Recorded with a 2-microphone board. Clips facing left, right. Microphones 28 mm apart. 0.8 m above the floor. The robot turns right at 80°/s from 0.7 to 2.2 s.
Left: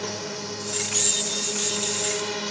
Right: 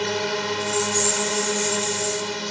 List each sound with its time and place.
0.0 s a drone: 120° right; by 2.5 s straight ahead